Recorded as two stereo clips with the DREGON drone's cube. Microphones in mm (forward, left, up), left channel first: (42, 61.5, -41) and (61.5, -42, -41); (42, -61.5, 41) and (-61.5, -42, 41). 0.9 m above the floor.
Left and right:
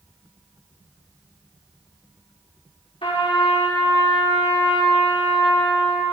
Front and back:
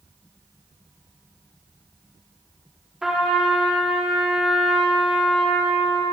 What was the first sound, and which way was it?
A trumpet, 85° left.